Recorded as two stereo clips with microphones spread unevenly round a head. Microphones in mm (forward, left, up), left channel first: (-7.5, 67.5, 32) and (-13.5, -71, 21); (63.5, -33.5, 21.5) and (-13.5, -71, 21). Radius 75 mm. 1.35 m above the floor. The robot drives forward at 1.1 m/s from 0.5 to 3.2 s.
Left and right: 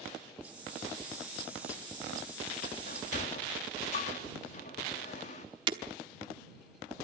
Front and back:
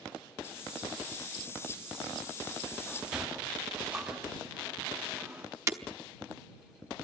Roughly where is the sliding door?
Left.